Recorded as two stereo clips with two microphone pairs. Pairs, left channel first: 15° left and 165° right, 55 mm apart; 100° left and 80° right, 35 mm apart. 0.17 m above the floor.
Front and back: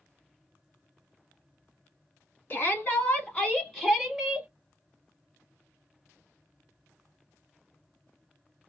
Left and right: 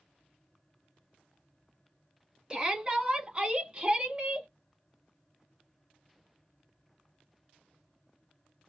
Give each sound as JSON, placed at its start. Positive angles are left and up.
{"t": 2.5, "sound": "a shout", "azimuth_deg": -15, "distance_m": 1.5}